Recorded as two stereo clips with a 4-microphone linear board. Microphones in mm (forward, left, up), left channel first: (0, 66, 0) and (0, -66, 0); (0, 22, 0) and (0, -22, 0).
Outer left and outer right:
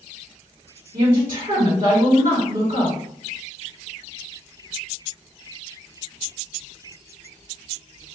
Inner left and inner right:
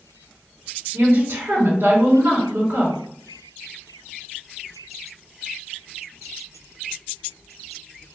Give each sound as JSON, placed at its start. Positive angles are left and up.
{"t": 0.9, "sound": "a woman speaking", "side_deg": -85, "distance_m": 1.7}